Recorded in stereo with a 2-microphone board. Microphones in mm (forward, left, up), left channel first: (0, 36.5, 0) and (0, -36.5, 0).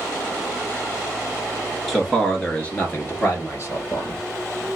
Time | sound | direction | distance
1.9 | a man speaking | 5° left (ahead or behind) | 1.3 m